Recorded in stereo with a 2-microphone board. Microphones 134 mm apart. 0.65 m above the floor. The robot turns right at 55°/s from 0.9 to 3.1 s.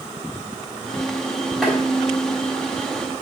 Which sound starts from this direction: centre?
Tapping, at 1.6 s.